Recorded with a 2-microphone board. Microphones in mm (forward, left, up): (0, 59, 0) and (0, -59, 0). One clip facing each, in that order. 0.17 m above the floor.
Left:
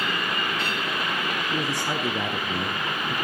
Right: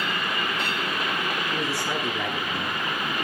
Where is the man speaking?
5° left (ahead or behind), 1.3 m; by 3.1 s 50° left (ahead or behind), 3 m.